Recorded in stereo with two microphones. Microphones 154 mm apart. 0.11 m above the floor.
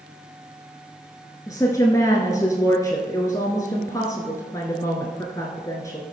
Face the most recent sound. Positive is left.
turn(degrees=20)  # may be behind; listen again after turning